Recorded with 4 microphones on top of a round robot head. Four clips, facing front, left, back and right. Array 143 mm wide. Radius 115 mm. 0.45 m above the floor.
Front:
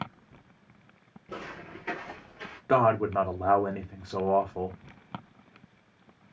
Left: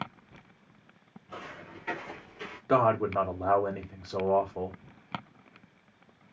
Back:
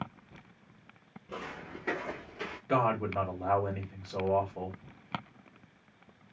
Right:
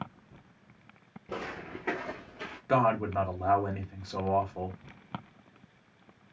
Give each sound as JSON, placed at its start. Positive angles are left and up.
{"t": 1.3, "sound": "footsteps", "azimuth_deg": -80, "distance_m": 0.6}
{"t": 2.7, "sound": "a man speaking", "azimuth_deg": 25, "distance_m": 1.1}